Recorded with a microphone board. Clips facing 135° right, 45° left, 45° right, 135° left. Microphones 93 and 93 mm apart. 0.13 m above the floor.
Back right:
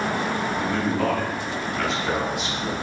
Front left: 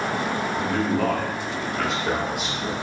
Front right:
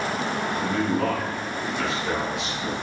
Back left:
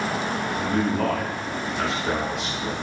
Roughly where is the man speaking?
Behind left.